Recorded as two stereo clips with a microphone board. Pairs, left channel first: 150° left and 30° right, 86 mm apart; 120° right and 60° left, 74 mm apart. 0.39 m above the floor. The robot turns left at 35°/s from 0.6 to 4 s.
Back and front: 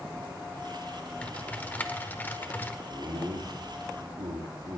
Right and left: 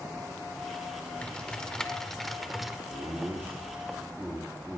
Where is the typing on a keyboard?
165° right, 1.1 m; by 2.8 s 140° left, 1.1 m.